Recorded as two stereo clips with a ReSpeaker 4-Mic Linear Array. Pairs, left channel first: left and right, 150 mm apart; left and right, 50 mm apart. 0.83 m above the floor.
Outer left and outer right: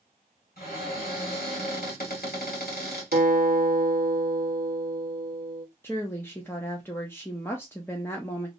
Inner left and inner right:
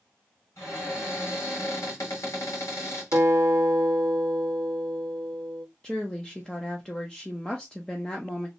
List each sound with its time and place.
0.6 s a cupboard door: 75° left (ahead or behind), 1.7 m
3.1 s a guitar: 65° right (ahead or behind), 0.7 m
5.8 s a woman speaking: 15° left (ahead or behind), 0.5 m